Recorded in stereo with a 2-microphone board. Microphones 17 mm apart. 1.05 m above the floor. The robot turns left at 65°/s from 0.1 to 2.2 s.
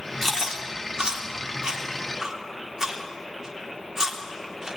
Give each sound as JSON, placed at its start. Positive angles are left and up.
{"t": 0.2, "sound": "chewing", "side_deg": -25, "distance_m": 3.0}